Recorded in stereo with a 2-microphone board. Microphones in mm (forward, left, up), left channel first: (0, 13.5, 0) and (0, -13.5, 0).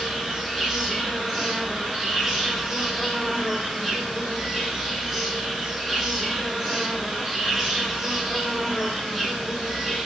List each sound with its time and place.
0.0 s an insect: 15° right (ahead or behind), 1.4 m